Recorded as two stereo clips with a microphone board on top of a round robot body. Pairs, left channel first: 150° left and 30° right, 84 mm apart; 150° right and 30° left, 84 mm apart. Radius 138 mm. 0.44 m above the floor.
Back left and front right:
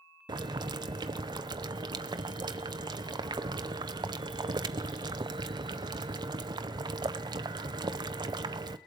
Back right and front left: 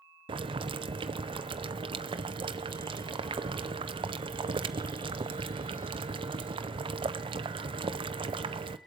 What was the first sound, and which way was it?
Boiling, 5° left.